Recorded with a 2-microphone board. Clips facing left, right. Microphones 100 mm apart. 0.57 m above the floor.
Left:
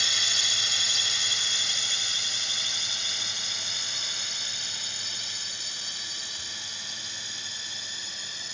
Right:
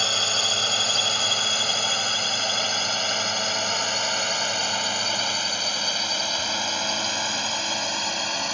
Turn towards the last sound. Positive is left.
turn(degrees=-70)  # may be behind; listen again after turning